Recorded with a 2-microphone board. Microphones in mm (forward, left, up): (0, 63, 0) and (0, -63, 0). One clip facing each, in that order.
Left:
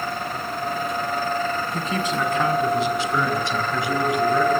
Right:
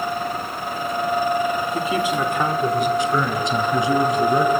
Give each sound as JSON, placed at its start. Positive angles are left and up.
{"t": 1.7, "sound": "a man speaking", "side_deg": -5, "distance_m": 2.0}